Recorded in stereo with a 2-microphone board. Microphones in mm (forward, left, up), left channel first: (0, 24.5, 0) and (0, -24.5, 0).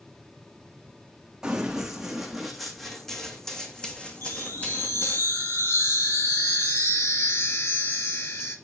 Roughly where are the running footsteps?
Centre.